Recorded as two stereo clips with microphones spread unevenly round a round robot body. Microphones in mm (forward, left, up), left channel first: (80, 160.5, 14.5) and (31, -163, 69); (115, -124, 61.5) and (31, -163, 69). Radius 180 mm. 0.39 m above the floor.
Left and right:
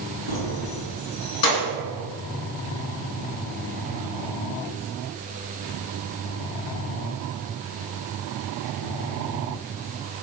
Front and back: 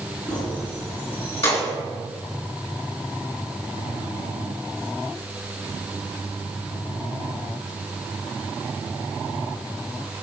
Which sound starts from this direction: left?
Keys jangling, at 0.3 s.